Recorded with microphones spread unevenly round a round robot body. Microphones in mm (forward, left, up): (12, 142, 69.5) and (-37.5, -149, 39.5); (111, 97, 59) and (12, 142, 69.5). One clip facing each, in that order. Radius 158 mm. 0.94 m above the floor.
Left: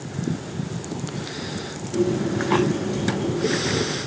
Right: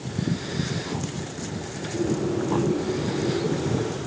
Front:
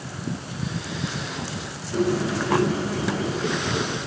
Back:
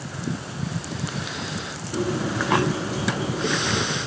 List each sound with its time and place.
1.9 s a bird: 80° left, 7 m